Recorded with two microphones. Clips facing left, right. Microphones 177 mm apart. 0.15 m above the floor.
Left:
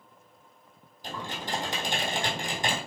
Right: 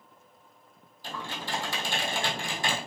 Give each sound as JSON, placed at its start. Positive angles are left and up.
{"t": 1.0, "sound": "typing on a keyboard", "side_deg": 20, "distance_m": 1.3}